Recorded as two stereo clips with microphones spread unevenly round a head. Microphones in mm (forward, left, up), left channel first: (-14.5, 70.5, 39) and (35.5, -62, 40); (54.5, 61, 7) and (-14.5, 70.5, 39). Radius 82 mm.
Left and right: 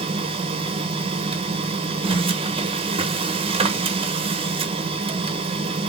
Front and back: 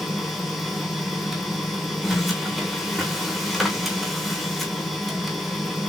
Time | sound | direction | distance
0.0 | a machine running | 60° right | 1.0 m